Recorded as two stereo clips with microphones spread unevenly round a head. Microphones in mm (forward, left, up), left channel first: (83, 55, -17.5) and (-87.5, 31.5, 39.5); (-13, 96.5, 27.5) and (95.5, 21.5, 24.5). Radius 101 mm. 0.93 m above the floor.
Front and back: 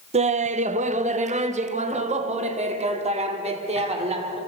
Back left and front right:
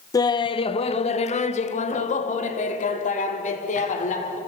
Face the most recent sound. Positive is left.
turn(degrees=135)